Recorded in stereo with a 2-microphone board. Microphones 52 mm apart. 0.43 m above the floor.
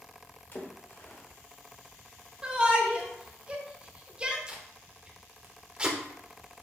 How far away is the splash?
About 0.8 m.